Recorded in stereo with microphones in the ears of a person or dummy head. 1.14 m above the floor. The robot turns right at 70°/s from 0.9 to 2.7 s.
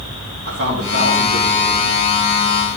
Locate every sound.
0.5 s a man speaking: 120° right, 3 m; by 1.9 s 45° right, 3 m